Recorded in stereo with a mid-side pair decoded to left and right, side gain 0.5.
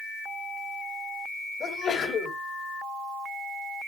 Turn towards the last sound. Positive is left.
turn(degrees=50)